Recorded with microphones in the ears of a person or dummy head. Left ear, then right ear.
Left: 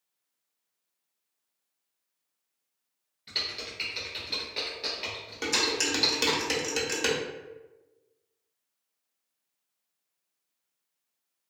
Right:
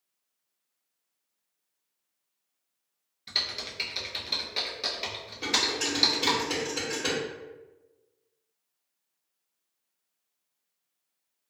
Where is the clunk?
I don't hear a clunk.